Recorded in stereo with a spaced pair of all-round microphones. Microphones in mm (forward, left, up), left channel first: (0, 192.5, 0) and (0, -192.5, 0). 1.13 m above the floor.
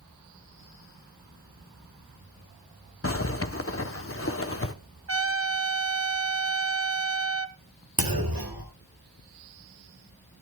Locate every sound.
3.0 s a zipper: 35° left (ahead or behind), 0.8 m
5.1 s a trumpet: 35° right (ahead or behind), 0.7 m
8.0 s a clunk: 65° right (ahead or behind), 2 m